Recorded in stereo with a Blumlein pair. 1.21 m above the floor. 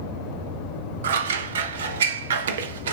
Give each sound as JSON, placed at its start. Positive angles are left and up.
{"t": 1.0, "sound": "scissors", "azimuth_deg": -60, "distance_m": 0.7}